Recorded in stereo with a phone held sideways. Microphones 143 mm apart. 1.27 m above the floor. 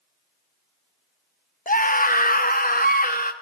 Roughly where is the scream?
Left.